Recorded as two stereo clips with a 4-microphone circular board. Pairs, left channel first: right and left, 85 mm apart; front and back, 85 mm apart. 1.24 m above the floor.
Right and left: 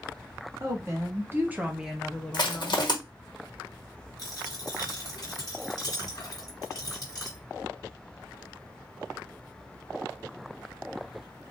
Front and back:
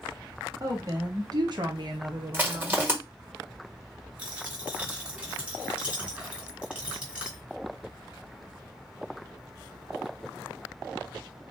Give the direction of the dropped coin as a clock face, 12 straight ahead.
4 o'clock.